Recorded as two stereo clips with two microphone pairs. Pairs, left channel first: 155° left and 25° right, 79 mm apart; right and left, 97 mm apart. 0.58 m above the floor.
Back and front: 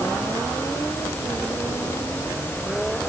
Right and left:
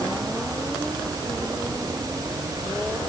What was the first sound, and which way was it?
Only background noise.